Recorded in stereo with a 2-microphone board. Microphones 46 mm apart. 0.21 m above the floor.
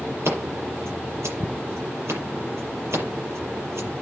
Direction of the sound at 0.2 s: 65° right (ahead or behind).